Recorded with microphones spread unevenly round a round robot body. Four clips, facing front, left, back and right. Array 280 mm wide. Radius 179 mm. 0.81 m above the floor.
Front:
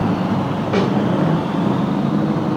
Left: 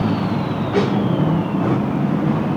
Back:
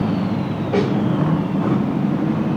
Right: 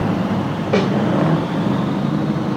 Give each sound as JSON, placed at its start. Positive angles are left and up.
{"t": 0.7, "sound": "a snare drum", "azimuth_deg": -90, "distance_m": 2.0}